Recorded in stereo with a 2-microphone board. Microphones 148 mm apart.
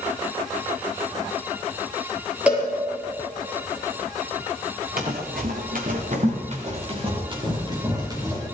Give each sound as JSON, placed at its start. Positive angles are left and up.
{"t": 2.5, "sound": "a cowbell", "side_deg": -10, "distance_m": 4.5}
{"t": 5.0, "sound": "running footsteps", "side_deg": -75, "distance_m": 2.5}